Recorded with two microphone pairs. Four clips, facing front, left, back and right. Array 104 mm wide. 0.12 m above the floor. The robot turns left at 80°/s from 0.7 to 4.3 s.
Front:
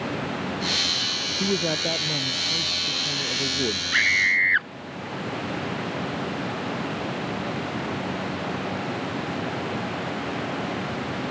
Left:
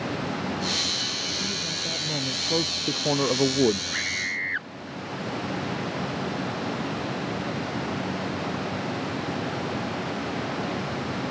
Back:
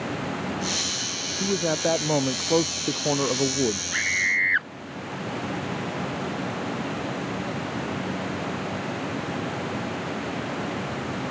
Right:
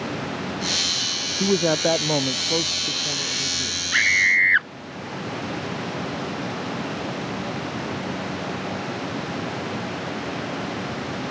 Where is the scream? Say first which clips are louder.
Right 10 dB, front 3 dB; 55° right; by 4.7 s 90° right.